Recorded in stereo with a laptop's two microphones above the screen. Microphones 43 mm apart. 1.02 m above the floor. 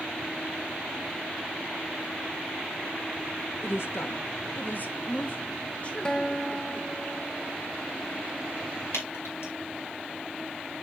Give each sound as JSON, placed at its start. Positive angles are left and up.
{"t": 3.6, "sound": "a woman speaking", "side_deg": 75, "distance_m": 1.2}
{"t": 6.0, "sound": "a guitar", "side_deg": 20, "distance_m": 0.6}
{"t": 8.9, "sound": "dripping", "side_deg": 80, "distance_m": 4.5}